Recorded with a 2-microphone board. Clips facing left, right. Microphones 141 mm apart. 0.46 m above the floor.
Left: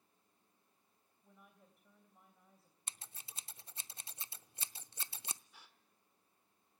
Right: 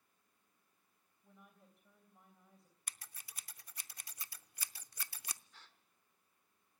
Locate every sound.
1.2 s a woman speaking: 5° left (ahead or behind), 3 m
2.9 s scissors: 25° left (ahead or behind), 0.5 m
5.5 s a gasp: 10° left (ahead or behind), 1.3 m